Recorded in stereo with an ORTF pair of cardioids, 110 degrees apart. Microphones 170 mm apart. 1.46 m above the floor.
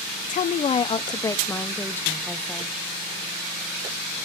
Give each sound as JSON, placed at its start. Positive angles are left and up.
{"t": 0.3, "sound": "a woman speaking", "azimuth_deg": 50, "distance_m": 0.8}